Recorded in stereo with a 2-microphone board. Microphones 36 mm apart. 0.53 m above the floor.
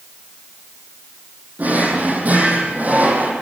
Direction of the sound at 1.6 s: 45° right (ahead or behind).